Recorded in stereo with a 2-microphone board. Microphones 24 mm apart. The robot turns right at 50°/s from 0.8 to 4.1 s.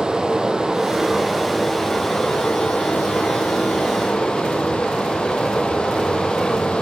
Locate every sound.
0.0 s running water: 35° right, 2 m; by 6.8 s 130° left, 2 m